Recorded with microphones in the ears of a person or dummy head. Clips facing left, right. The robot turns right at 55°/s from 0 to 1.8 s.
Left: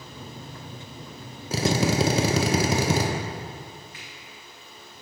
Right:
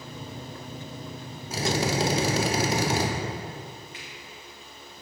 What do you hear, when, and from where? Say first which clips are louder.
1.5 s a drill: left 3 dB; 60° left (ahead or behind), 1.1 m; by 3.1 s 75° left (ahead or behind), 1.1 m
3.9 s a finger snap: right 2 dB; 20° right (ahead or behind), 2 m